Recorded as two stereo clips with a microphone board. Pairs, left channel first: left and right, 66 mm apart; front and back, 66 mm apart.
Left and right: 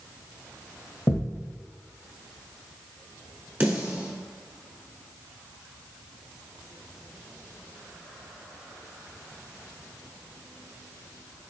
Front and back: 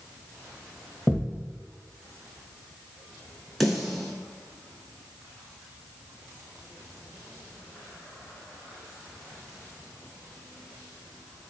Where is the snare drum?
85° right, 1.1 m.